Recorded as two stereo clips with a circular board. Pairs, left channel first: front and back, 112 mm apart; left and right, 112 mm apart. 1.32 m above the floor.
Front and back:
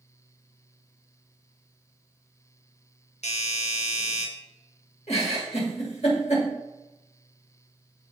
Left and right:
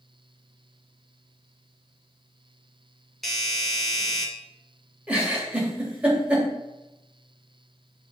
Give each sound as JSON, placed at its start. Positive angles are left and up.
{"t": 3.2, "sound": "a doorbell", "azimuth_deg": 0, "distance_m": 2.0}
{"t": 5.1, "sound": "a giggle", "azimuth_deg": -10, "distance_m": 3.0}